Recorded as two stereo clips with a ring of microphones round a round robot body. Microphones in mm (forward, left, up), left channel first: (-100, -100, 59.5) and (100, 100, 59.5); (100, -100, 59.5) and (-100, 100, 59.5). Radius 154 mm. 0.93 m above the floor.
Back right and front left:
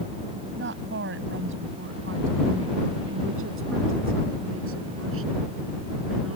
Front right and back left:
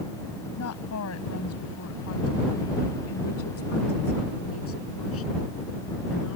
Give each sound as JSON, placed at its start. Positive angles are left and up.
{"t": 0.6, "sound": "a woman speaking", "azimuth_deg": -5}